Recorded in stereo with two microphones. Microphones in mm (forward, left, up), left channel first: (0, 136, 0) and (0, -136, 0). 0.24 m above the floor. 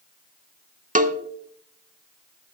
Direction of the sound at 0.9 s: 30° right (ahead or behind).